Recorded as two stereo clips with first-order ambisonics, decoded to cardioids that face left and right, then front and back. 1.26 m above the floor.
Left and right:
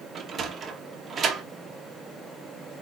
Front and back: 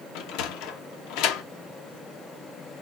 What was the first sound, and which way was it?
A sliding door, 20° right.